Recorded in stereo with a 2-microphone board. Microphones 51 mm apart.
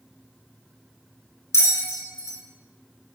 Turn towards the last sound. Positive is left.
turn(degrees=85)